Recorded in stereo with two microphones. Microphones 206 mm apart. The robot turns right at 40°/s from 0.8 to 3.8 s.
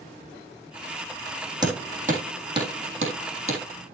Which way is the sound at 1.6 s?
20° right (ahead or behind).